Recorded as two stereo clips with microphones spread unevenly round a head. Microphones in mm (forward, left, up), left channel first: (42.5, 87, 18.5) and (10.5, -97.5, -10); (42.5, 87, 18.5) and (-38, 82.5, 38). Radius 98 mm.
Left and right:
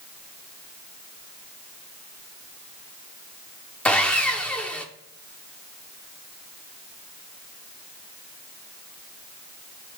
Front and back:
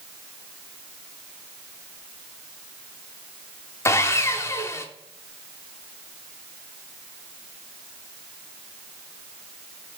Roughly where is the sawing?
Ahead left.